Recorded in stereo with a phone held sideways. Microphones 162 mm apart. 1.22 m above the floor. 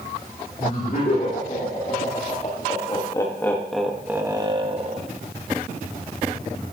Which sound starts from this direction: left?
Laughter, at 0.6 s.